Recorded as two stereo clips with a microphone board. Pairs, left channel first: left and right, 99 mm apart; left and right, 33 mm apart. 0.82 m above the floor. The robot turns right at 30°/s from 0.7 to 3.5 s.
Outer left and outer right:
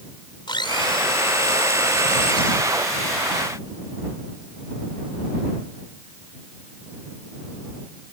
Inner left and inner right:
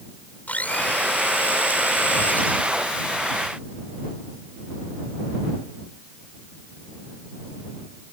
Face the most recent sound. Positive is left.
turn(degrees=140)